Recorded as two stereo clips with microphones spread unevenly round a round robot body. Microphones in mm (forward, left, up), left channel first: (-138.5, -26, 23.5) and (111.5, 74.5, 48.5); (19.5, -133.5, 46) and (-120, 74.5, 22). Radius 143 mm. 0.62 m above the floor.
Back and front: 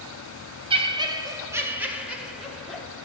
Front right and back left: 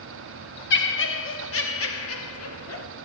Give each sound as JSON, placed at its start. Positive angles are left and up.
{"t": 0.7, "sound": "laughter", "azimuth_deg": -45, "distance_m": 1.4}